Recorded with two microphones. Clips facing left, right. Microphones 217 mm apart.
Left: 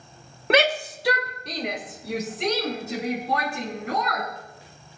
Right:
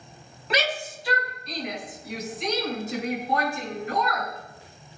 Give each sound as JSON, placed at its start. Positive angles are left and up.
{"t": 0.5, "sound": "a shout", "side_deg": 60, "distance_m": 1.1}